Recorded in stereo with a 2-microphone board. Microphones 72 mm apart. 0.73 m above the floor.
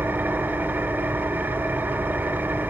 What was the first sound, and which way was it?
An engine running, 30° right (ahead or behind).